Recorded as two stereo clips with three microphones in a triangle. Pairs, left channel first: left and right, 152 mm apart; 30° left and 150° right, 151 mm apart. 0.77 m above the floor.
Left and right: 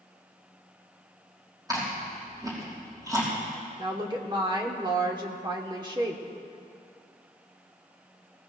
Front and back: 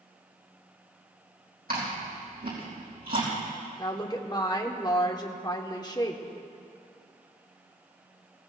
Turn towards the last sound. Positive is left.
turn(degrees=-30)